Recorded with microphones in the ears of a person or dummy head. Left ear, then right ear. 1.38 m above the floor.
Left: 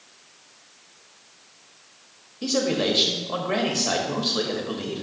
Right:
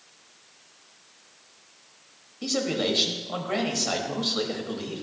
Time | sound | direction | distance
2.4 | a man speaking | centre (ahead or behind) | 1.1 m